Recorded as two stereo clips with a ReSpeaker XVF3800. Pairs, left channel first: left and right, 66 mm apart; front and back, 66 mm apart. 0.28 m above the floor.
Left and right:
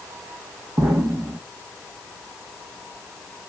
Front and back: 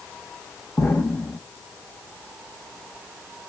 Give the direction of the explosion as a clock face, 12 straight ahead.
2 o'clock.